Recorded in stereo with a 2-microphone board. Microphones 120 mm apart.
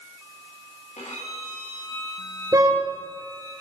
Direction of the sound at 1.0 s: 75° left (ahead or behind).